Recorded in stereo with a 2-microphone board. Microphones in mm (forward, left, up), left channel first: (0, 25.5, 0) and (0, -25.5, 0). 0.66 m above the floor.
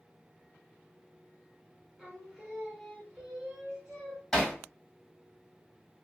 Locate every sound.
2.0 s singing: 15° right (ahead or behind), 1.0 m
4.3 s hammering: centre (ahead or behind), 1.1 m